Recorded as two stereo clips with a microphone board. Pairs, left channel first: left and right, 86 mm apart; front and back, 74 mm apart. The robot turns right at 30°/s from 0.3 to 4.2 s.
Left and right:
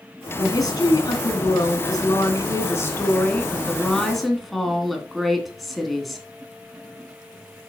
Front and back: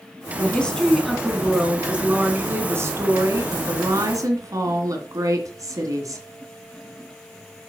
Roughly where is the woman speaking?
Ahead left.